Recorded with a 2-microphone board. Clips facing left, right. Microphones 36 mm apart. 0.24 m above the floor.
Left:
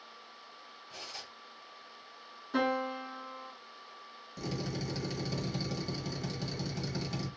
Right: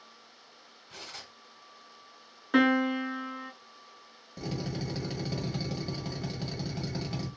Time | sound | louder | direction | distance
0.9 | cutlery clinking | right 1 dB | 50° right (ahead or behind) | 1.6 m
2.5 | a piano | right 7 dB | 80° right | 0.7 m
4.4 | a drill | right 2 dB | 15° right (ahead or behind) | 1.3 m